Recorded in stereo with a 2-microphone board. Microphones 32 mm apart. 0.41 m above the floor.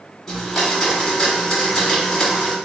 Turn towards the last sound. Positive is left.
turn(degrees=15)  # may be behind; listen again after turning